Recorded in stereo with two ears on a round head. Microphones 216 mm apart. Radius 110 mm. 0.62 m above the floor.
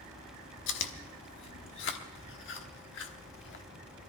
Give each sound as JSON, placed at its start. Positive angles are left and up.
{"t": 0.7, "sound": "chewing", "side_deg": 55, "distance_m": 1.1}